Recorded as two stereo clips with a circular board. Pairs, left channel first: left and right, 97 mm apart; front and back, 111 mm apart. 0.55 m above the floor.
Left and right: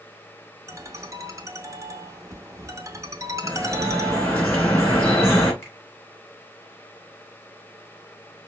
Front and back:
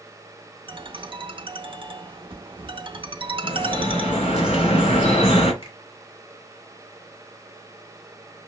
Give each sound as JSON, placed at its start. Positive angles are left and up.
{"t": 0.7, "sound": "a ringtone", "azimuth_deg": -145, "distance_m": 0.5}
{"t": 3.4, "sound": "dripping", "azimuth_deg": 20, "distance_m": 2.0}
{"t": 5.6, "sound": "a finger snap", "azimuth_deg": 25, "distance_m": 1.8}